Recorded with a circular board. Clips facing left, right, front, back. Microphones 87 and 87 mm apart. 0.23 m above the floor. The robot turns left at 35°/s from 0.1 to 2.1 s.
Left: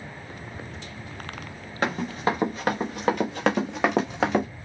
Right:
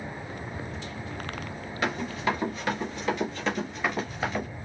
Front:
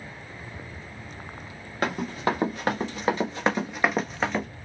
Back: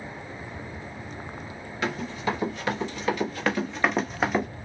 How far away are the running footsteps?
About 1.5 m.